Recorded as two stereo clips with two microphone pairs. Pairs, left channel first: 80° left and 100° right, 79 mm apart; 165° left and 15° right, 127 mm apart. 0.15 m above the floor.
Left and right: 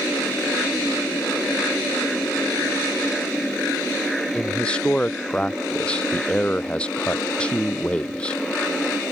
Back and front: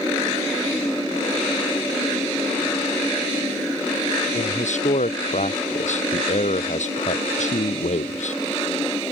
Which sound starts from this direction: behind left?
A man speaking, at 4.3 s.